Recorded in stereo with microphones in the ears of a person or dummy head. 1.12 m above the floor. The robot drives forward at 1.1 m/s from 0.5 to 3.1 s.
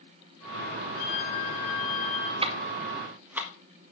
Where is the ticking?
35° right (ahead or behind), 0.6 m; by 3.5 s 15° right (ahead or behind), 1.3 m.